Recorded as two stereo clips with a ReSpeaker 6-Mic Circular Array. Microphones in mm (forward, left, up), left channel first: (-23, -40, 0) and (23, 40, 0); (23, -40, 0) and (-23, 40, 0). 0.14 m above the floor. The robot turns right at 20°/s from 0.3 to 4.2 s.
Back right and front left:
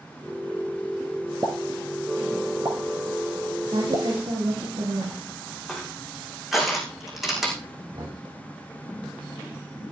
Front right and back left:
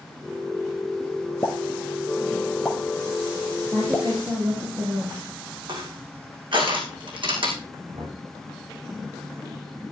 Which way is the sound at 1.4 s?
Straight ahead.